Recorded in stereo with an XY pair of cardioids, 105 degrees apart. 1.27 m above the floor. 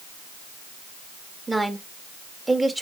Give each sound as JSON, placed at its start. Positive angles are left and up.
{"t": 1.5, "sound": "a woman speaking", "azimuth_deg": -15, "distance_m": 1.8}